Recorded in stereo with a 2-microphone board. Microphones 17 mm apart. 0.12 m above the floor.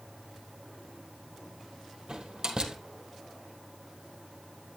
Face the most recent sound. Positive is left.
turn(degrees=-60)  # may be behind; listen again after turning